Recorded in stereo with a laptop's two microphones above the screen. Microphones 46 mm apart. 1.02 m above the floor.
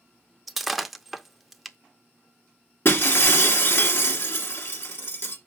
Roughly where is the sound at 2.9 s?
Left.